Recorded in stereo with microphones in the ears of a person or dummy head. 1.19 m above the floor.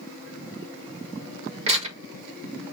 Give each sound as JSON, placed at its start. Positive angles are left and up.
{"t": 1.7, "sound": "tearing paper", "side_deg": -35, "distance_m": 1.6}